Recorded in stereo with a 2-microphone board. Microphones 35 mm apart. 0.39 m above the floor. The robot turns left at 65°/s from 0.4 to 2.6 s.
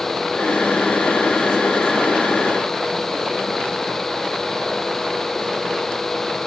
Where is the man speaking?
I don't hear a man speaking.